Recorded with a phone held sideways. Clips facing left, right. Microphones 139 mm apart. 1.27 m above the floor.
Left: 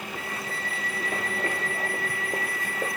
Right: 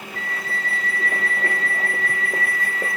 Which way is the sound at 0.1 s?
75° right (ahead or behind).